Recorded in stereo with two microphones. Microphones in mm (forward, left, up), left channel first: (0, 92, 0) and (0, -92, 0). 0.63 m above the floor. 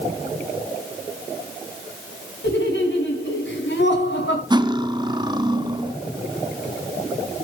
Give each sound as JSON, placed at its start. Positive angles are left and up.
{"t": 2.4, "sound": "laughter", "side_deg": 85, "distance_m": 5.0}
{"t": 4.5, "sound": "cutlery clinking", "side_deg": -25, "distance_m": 0.8}